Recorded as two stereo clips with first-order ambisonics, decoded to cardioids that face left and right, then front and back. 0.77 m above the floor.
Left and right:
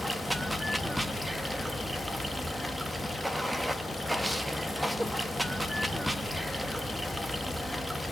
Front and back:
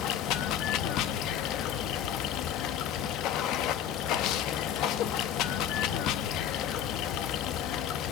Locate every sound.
0.0 s running water: 5° right, 0.8 m